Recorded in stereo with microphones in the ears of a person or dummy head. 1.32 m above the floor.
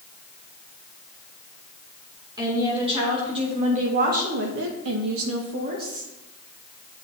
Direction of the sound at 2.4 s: 20° right (ahead or behind).